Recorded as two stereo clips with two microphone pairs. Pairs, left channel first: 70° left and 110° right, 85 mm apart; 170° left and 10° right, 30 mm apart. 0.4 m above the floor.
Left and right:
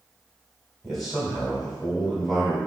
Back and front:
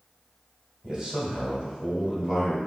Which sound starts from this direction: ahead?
A man speaking, at 0.8 s.